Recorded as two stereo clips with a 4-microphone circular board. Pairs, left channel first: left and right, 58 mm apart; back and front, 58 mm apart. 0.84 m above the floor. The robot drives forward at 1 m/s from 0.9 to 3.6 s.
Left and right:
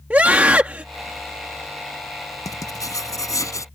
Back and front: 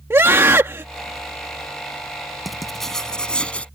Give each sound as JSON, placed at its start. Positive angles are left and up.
{"t": 0.1, "sound": "a scream", "azimuth_deg": -30}
{"t": 2.5, "sound": "writing", "azimuth_deg": 90}